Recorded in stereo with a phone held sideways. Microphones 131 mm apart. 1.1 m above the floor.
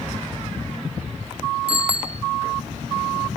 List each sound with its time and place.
1.7 s a bicycle bell: 50° right (ahead or behind), 2 m